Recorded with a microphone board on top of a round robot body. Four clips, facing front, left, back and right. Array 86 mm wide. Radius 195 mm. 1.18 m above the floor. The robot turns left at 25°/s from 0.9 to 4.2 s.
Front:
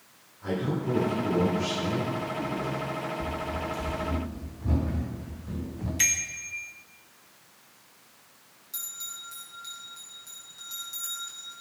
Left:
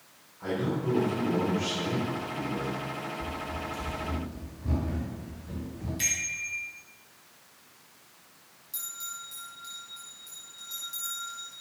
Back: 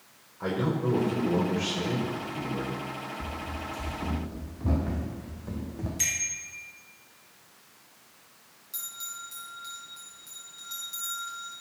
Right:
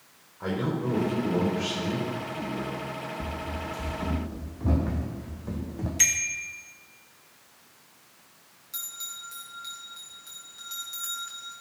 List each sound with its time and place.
0.4 s a man speaking: 150° right, 5.5 m; by 2.8 s 160° left, 5.5 m
3.2 s running footsteps: 110° right, 2.5 m; by 5.9 s 115° right, 3.5 m
6.0 s a bicycle bell: 50° right, 2 m
8.7 s a bell: 85° right, 5 m